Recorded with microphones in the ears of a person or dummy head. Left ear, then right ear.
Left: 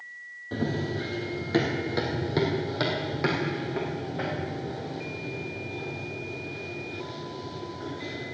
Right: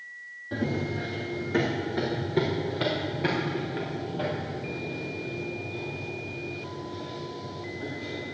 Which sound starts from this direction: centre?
Running footsteps, at 0.5 s.